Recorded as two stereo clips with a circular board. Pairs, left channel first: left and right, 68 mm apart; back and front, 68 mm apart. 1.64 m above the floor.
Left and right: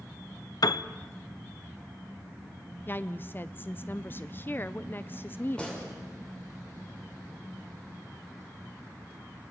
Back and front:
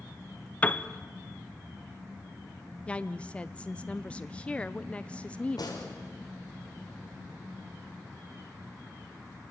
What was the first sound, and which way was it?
A piano, 110° left.